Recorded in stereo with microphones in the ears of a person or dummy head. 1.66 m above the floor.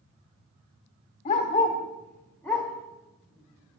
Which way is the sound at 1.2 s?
25° left (ahead or behind).